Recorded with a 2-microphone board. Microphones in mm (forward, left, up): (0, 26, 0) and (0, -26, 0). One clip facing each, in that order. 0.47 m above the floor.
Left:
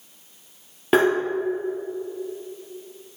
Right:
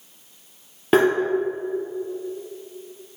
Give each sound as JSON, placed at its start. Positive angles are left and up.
{"t": 0.9, "sound": "tapping", "side_deg": 0, "distance_m": 2.5}